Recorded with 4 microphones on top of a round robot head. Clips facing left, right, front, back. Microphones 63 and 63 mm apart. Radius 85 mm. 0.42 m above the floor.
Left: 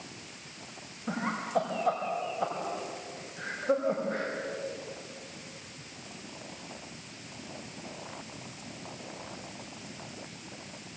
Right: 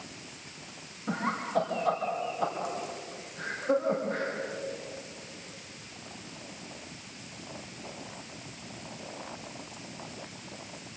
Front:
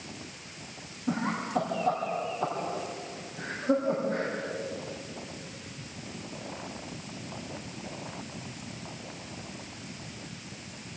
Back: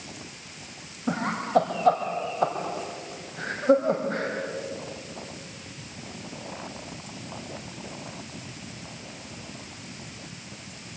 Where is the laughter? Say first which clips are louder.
Right 1 dB, back 4 dB; 175° left, 3.5 m.